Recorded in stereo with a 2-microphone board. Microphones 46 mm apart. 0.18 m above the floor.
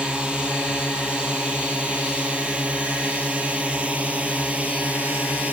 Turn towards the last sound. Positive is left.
turn(degrees=-35)  # may be behind; listen again after turning